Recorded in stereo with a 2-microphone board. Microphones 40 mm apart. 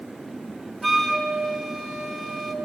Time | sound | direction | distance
0.8 | a flute | centre (ahead or behind) | 1.1 m